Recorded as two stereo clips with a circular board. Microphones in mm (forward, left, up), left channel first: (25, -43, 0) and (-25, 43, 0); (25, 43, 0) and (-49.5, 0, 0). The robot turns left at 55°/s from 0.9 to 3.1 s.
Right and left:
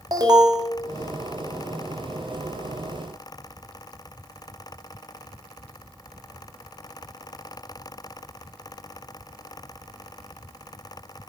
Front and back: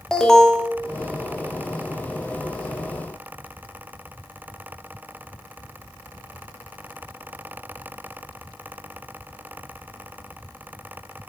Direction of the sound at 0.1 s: 110° left.